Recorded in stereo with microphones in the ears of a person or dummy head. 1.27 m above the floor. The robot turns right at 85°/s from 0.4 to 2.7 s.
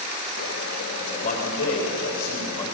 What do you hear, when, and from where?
1.0 s a man speaking: 20° left, 4.5 m; by 2.7 s 165° left, 4.5 m